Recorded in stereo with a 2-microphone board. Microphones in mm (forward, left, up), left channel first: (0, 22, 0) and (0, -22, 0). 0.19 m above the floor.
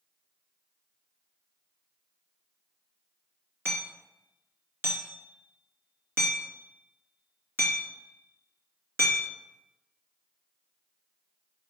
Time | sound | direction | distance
3.6 | hammering | 60° right (ahead or behind) | 2.5 m